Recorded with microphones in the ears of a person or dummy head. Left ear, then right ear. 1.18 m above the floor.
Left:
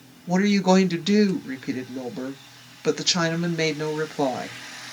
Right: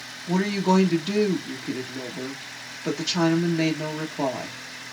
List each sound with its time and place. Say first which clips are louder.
0.3 s a woman speaking: left 3 dB; 10° left (ahead or behind), 1.0 m